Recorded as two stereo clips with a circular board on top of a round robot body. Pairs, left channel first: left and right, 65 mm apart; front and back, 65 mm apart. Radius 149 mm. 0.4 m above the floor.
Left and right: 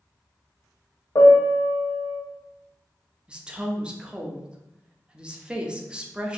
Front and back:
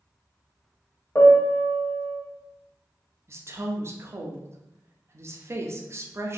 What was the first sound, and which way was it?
A piano, 60° left.